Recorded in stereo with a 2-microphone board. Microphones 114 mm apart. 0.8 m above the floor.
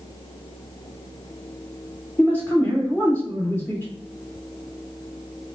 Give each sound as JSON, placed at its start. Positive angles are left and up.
{"t": 2.2, "sound": "a man speaking", "side_deg": 15, "distance_m": 1.4}